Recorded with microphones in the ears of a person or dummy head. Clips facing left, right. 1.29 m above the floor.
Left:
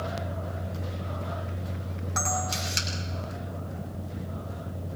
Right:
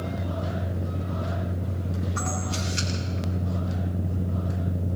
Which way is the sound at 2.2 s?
80° left.